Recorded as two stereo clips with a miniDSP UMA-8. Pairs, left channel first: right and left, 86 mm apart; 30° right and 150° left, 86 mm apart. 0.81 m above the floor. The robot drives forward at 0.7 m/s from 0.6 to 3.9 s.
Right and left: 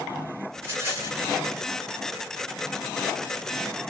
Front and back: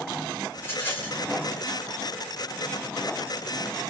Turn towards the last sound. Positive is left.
turn(degrees=70)